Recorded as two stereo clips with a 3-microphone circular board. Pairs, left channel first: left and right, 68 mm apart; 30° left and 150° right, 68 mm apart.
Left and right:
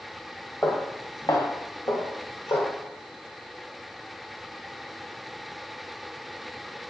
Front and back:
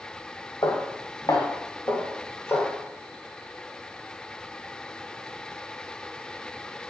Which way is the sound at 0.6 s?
35° left.